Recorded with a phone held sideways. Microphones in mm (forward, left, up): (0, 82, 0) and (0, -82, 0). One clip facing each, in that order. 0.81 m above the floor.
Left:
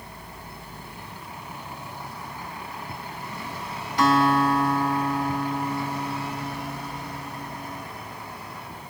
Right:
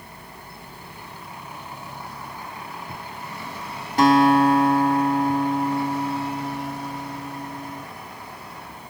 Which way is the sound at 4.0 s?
45° right (ahead or behind).